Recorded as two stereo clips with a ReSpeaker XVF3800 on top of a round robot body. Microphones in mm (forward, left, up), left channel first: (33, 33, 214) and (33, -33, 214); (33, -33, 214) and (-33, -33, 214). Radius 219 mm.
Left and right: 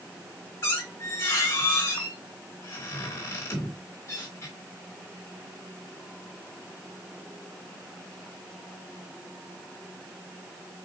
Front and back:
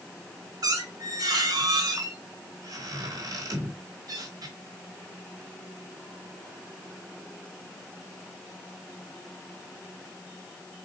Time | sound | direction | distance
0.6 | a squeak | 145° left | 0.6 m